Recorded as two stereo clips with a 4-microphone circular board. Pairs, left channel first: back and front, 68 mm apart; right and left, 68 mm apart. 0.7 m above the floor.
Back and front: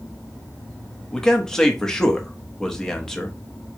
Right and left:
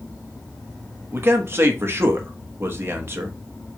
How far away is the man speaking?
About 0.9 m.